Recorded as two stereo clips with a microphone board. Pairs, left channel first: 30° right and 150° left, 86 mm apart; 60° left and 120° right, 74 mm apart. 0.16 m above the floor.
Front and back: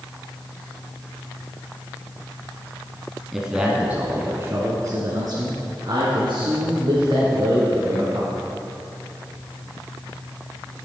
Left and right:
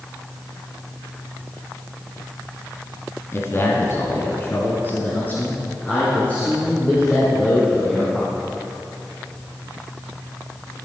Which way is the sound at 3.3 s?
65° left.